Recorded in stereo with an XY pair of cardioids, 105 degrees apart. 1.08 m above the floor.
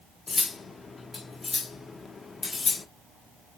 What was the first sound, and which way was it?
Cutlery clinking, 35° left.